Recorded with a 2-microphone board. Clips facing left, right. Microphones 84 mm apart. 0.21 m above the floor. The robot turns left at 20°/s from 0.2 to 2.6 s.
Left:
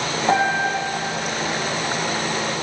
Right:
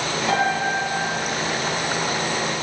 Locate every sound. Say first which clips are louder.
0.3 s a piano: left 3 dB; 25° left (ahead or behind), 5 m; by 0.7 s 35° left (ahead or behind), 5 m